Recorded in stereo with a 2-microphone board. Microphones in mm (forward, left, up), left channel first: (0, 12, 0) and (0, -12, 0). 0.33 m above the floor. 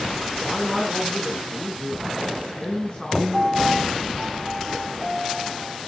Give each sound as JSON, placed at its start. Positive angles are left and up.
{"t": 0.4, "sound": "a man speaking", "side_deg": 5, "distance_m": 4.0}
{"t": 3.3, "sound": "a piano", "side_deg": 15, "distance_m": 8.5}